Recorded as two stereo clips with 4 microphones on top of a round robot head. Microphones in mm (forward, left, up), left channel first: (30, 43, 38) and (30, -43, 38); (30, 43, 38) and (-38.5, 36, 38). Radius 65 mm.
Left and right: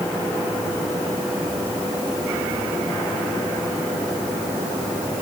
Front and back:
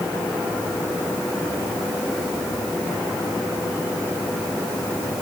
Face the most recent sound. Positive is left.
No sound to turn to.